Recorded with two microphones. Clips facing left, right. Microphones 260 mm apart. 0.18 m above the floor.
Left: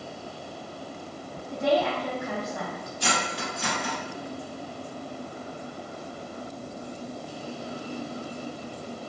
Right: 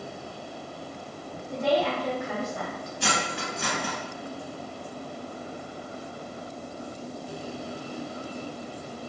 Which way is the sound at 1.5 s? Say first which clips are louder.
Even; 10° right (ahead or behind).